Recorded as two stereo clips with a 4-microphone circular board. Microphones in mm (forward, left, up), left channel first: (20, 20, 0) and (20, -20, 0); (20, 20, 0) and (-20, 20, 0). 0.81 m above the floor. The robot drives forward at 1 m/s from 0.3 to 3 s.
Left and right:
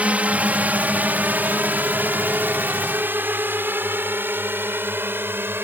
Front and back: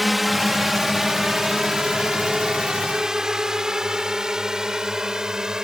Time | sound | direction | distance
0.0 | a drone | 95° right | ?